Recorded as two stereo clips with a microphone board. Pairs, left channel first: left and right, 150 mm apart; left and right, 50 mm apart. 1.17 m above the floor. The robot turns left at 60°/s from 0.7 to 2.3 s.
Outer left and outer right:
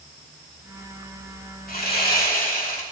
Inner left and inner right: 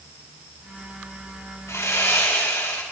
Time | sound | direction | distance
1.7 | sawing | 105° left | 2.5 m